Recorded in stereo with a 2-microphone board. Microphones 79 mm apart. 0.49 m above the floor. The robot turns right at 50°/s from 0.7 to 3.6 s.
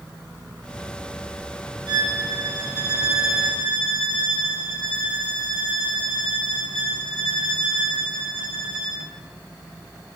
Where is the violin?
70° right, 2.0 m; by 9.0 s 15° left, 2.0 m.